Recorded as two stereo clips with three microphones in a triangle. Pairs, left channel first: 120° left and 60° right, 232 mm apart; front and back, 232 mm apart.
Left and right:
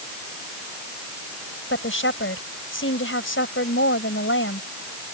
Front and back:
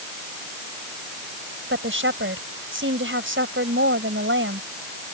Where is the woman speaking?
150° left.